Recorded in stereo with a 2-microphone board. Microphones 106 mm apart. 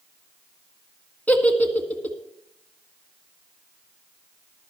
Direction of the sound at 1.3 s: 15° left (ahead or behind).